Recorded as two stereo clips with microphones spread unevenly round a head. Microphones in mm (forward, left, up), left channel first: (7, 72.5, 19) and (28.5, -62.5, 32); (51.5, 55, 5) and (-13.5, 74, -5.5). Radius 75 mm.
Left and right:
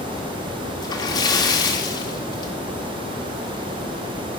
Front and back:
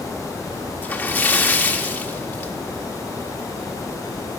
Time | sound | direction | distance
0.8 | a splash | 40° left | 1.6 m